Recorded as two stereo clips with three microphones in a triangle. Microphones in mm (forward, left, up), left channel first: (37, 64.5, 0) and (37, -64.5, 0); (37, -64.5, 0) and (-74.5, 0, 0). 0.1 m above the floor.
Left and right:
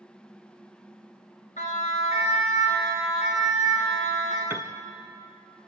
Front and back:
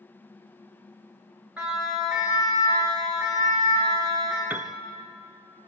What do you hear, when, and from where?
1.6 s a siren: 70° left, 9.5 m; by 4.4 s 85° left, 9 m
4.5 s a piano: 145° right, 1.0 m